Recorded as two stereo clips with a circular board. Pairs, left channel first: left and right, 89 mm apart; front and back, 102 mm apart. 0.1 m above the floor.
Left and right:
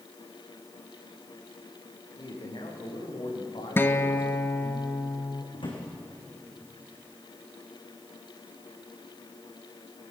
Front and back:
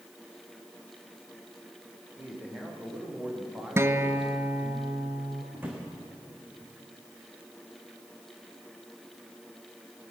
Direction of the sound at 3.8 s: 135° left.